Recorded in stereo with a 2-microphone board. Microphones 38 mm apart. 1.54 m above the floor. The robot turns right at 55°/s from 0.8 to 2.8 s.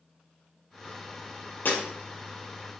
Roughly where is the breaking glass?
Left.